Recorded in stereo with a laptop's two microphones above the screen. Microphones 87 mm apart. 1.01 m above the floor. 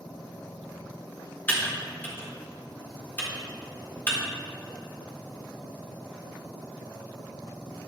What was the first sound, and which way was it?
Typing on a keyboard, 20° left (ahead or behind).